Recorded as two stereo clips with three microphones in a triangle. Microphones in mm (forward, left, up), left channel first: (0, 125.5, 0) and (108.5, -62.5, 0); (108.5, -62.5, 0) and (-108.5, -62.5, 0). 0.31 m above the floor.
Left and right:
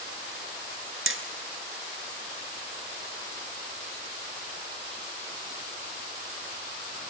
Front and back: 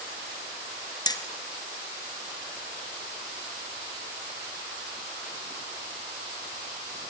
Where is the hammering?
70° right, 1.4 m.